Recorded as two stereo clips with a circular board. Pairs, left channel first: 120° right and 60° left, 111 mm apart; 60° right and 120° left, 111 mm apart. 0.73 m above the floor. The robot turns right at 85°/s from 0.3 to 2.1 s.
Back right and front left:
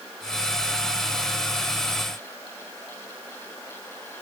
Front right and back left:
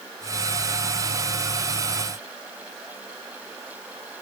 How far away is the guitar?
No guitar in this recording.